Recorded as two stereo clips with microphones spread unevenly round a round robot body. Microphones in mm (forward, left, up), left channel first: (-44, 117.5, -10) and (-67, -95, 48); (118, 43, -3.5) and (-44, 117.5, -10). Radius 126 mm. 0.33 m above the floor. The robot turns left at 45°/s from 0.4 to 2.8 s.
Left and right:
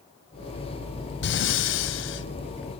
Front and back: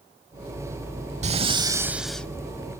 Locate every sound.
1.2 s breathing: 105° left, 0.6 m; by 2.3 s 60° left, 0.6 m